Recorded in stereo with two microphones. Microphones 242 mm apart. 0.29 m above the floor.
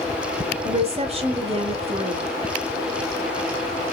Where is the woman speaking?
25° right (ahead or behind), 1.2 m.